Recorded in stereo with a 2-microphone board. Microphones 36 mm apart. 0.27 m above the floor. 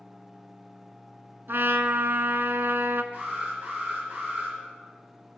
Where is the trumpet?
85° right, 0.6 m.